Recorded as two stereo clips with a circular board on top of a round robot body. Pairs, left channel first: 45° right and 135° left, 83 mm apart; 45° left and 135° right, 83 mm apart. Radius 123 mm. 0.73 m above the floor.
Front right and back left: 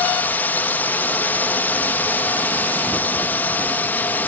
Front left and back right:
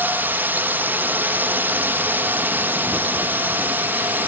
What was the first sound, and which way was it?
A drone, 90° right.